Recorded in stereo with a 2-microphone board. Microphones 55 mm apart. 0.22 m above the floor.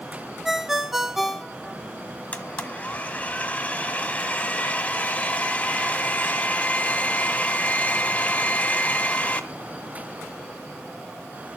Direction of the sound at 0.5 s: 5° right (ahead or behind).